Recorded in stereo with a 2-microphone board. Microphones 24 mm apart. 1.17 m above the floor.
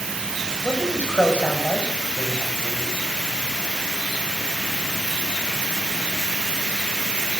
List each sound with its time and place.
0.6 s a man speaking: 75° left (ahead or behind), 7.5 m